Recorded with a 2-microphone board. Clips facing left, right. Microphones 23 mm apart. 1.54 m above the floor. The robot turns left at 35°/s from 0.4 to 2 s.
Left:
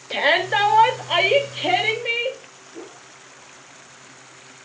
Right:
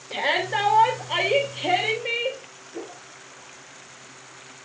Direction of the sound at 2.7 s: 85° right.